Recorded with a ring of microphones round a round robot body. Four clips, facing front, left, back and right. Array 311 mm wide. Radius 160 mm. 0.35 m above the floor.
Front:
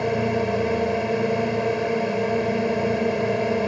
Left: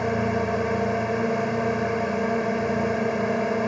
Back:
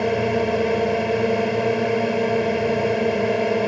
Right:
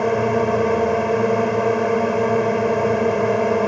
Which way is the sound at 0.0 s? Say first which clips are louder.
Right 6 dB, back 2 dB; 110° right.